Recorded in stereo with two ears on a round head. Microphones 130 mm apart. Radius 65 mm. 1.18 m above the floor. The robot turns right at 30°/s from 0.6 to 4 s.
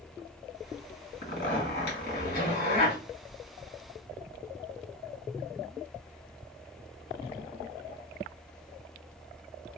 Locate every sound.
1.2 s a zipper: 70° left, 2.5 m; by 3.0 s 125° left, 2.5 m